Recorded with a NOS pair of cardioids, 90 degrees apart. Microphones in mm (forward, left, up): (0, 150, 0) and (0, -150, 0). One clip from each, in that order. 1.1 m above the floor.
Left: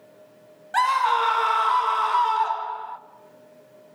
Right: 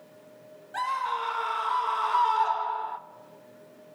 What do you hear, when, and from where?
0.7 s a scream: 70° left, 1.5 m; by 3.0 s 5° right, 1.4 m